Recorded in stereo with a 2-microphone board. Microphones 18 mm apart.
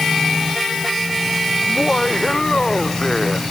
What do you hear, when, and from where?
1.6 s laughter: 45° left (ahead or behind); by 3.4 s 40° left (ahead or behind)